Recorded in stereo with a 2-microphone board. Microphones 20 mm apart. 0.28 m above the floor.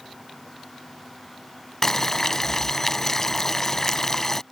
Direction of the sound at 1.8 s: 25° left (ahead or behind).